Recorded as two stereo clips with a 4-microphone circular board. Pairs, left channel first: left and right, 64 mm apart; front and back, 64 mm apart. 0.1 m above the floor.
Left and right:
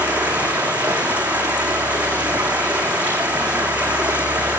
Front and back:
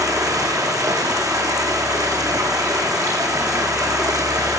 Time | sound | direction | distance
0.0 | running water | 155° right | 6.5 m